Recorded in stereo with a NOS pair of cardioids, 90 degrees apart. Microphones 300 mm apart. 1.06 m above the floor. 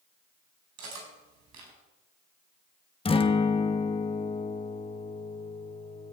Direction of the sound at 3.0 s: 20° left.